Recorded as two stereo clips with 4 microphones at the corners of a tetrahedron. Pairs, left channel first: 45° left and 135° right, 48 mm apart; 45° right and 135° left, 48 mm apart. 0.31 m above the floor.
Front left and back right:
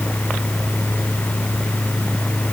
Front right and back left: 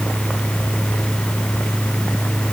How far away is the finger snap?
No finger snap in this recording.